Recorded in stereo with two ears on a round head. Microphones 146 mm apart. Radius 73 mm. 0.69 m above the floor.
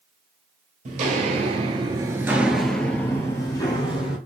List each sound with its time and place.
0.8 s footsteps: 50° right (ahead or behind), 1.0 m; by 4.2 s 30° left (ahead or behind), 1.3 m